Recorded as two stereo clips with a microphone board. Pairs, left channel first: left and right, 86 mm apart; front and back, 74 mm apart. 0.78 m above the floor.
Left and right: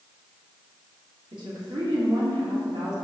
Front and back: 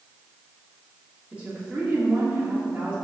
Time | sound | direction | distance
1.3 | a woman speaking | 115° right | 1.9 m